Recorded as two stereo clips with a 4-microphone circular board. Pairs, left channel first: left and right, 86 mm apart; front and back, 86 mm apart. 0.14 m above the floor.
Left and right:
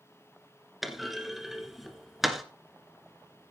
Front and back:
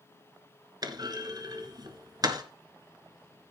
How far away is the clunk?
About 1.6 m.